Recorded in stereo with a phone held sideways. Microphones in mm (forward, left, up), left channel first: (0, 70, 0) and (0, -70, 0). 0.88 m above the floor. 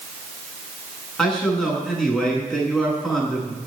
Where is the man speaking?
5° left (ahead or behind), 8.5 m.